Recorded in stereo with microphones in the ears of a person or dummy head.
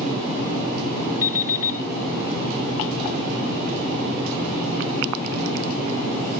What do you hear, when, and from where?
1.2 s an alarm clock: 50° left (ahead or behind), 1.3 m